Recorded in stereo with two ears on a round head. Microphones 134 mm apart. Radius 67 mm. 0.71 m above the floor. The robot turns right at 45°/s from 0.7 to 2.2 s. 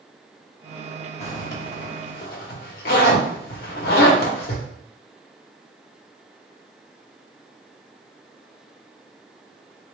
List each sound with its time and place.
1.2 s a zipper: 45° left (ahead or behind), 1.0 m; by 4.7 s 70° left (ahead or behind), 1.0 m